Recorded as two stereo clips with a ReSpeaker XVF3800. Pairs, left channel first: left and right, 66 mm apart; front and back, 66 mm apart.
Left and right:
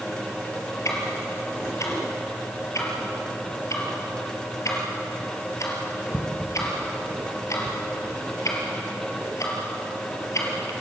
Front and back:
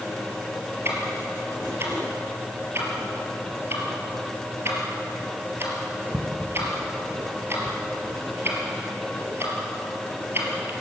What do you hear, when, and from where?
0.8 s ticking: 130° left, 4 m